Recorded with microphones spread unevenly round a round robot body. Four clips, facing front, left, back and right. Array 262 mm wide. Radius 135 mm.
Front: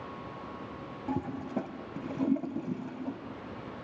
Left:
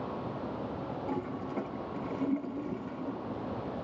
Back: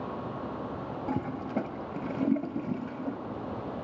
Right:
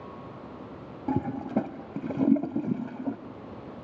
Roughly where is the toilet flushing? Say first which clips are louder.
Right 10 dB, back 1 dB; right.